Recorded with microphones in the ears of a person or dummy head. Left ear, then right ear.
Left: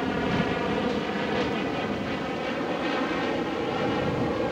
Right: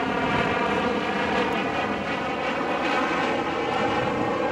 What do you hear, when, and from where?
0.0 s an aircraft: 45° right (ahead or behind)